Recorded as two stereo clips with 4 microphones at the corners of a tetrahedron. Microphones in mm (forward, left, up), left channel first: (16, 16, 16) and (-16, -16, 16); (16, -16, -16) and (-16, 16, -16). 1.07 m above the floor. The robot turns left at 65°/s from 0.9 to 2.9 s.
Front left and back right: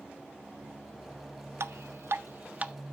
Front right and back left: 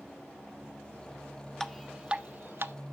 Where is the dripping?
125° right, 0.5 m; by 2.7 s 160° left, 0.5 m.